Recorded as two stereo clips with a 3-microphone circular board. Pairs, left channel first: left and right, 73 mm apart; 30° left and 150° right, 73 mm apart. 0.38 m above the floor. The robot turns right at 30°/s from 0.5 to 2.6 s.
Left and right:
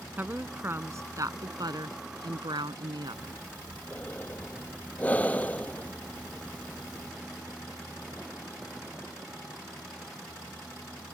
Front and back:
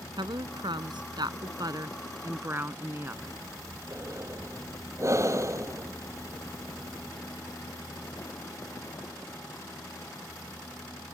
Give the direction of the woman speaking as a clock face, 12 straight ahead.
5 o'clock.